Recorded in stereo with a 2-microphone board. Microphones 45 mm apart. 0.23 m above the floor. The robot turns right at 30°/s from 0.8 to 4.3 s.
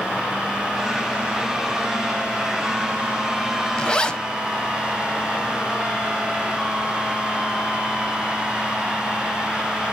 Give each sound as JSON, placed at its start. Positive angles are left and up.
{"t": 3.8, "sound": "a zipper", "side_deg": 20, "distance_m": 0.8}